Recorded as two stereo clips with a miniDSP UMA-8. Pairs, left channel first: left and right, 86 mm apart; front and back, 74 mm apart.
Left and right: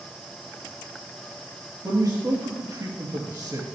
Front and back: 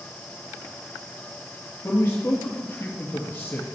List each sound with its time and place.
1.8 s a man speaking: 50° right, 2.5 m